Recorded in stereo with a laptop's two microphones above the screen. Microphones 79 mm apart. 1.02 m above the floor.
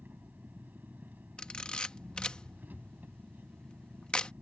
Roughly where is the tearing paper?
I don't hear tearing paper.